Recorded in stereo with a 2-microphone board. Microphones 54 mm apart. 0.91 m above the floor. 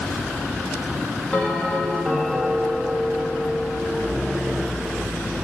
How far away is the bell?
About 1.6 m.